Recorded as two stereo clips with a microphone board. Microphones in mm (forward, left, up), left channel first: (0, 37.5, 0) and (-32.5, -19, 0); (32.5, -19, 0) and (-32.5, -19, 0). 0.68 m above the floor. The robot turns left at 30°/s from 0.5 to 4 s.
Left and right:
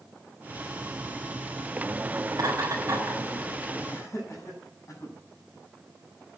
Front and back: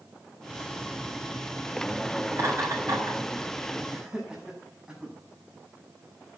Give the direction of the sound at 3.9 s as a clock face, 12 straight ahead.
9 o'clock.